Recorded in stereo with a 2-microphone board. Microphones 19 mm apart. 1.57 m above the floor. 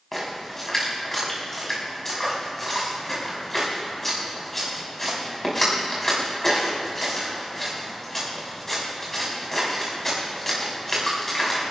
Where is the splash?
15° left (ahead or behind), 5.5 m.